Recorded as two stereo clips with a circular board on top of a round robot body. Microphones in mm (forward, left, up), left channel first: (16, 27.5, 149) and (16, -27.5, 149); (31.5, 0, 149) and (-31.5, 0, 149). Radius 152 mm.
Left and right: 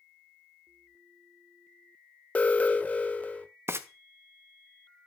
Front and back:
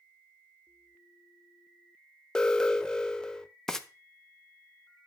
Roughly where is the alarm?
Ahead left.